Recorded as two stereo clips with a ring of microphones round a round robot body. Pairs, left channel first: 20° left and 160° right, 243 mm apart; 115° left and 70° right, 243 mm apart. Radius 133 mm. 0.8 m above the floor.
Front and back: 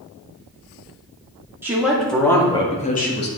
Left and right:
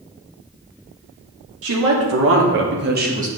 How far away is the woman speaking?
About 2.5 m.